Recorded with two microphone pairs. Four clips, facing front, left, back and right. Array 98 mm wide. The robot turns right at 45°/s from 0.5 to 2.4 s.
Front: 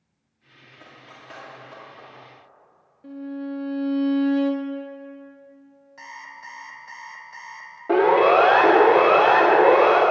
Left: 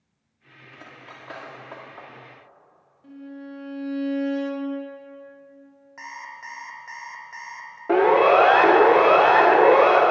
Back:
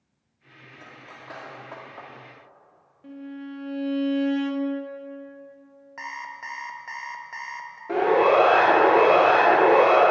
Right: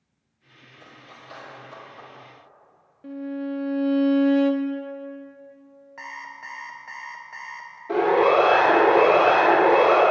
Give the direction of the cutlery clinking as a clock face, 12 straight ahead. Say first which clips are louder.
Left 3 dB, back 1 dB; 9 o'clock.